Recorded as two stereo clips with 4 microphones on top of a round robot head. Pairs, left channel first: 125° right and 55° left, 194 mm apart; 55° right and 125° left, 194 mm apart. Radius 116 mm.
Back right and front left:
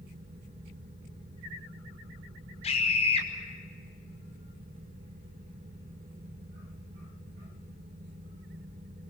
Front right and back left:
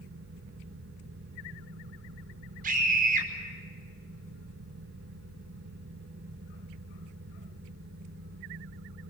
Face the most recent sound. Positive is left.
turn(degrees=175)